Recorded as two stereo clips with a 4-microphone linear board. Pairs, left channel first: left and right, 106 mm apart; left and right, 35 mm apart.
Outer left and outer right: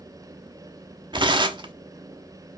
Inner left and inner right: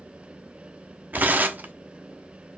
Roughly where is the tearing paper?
Right.